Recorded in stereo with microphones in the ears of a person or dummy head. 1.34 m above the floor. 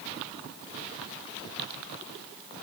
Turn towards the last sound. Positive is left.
No sound to turn to.